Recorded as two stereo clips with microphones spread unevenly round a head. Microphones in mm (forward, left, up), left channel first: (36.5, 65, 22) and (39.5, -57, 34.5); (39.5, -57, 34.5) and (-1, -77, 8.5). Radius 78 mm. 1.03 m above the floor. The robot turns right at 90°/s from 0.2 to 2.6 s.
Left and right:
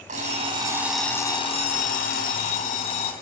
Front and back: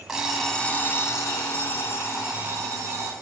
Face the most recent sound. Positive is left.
turn(degrees=145)